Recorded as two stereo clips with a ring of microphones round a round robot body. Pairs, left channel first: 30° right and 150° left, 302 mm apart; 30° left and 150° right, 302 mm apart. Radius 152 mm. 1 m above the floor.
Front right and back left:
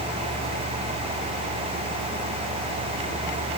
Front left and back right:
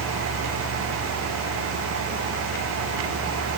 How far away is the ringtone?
No ringtone in this recording.